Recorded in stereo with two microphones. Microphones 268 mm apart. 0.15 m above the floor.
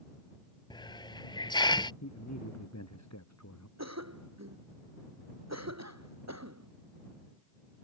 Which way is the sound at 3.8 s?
80° right.